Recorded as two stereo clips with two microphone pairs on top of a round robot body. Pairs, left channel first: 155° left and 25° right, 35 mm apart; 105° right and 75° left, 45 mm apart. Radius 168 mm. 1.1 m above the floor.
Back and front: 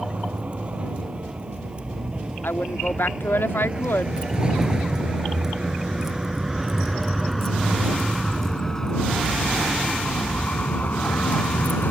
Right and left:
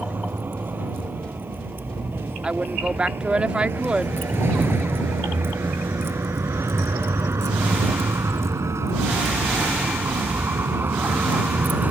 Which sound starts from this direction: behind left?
A woman speaking, at 2.4 s.